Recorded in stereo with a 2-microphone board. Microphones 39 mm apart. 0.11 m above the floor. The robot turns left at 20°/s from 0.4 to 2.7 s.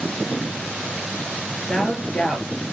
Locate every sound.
1.7 s a woman speaking: 20° left (ahead or behind), 2 m; by 2.6 s 10° left (ahead or behind), 2 m